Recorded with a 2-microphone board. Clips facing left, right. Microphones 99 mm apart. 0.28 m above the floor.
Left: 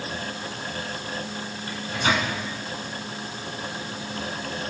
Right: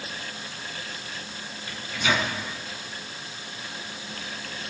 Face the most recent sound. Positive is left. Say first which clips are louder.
# left 2 dB
turn(degrees=40)  # may be behind; listen again after turning